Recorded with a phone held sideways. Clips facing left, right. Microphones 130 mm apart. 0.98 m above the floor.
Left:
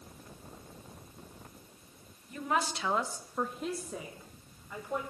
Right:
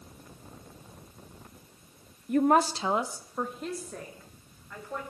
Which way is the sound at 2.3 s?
65° right (ahead or behind).